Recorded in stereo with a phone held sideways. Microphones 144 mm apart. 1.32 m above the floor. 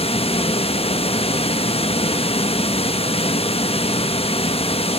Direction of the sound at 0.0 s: 45° left (ahead or behind).